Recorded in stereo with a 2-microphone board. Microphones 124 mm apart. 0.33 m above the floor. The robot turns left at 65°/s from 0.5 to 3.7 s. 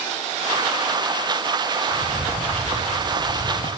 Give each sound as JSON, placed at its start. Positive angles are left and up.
{"t": 1.9, "sound": "footsteps", "side_deg": -10, "distance_m": 6.5}